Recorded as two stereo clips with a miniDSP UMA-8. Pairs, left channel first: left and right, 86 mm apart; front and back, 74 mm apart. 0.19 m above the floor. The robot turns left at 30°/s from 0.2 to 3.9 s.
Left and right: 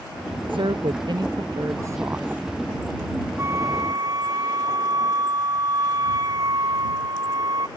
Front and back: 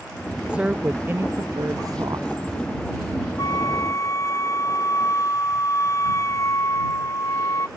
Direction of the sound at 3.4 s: 35° right.